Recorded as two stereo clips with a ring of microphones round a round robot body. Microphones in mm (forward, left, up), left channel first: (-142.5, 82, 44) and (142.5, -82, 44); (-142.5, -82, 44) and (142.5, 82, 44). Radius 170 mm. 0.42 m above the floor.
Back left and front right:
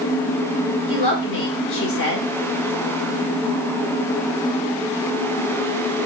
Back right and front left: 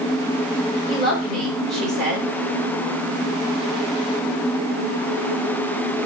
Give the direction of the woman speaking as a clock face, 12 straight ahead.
8 o'clock.